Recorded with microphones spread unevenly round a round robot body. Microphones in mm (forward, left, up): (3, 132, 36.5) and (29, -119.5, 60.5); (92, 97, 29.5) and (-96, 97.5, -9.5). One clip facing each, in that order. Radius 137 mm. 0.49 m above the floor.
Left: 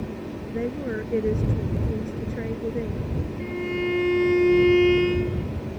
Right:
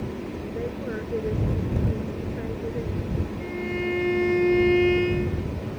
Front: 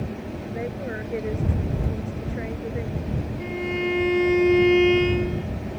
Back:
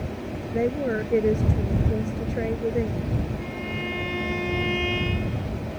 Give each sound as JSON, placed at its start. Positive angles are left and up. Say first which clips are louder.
{"t": 0.5, "sound": "a woman speaking", "louder": "left 5 dB, back 8 dB", "azimuth_deg": 140}
{"t": 3.4, "sound": "a violin", "louder": "left 3 dB, front 5 dB", "azimuth_deg": 25}